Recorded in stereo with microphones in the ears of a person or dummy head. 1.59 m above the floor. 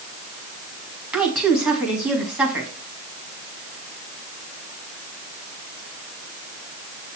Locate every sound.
1.1 s a woman speaking: 15° right (ahead or behind), 1.7 m